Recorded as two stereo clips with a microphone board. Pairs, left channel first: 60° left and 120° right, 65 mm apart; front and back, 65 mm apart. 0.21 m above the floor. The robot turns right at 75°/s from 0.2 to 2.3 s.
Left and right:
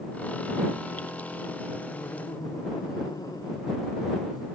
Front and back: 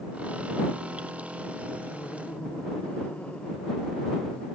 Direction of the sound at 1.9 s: 40° left.